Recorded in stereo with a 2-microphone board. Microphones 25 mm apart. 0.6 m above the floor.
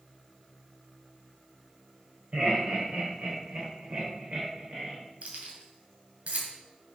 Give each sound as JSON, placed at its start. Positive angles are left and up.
{"t": 2.3, "sound": "laughter", "side_deg": -60, "distance_m": 3.5}
{"t": 5.2, "sound": "keys jangling", "side_deg": -60, "distance_m": 2.5}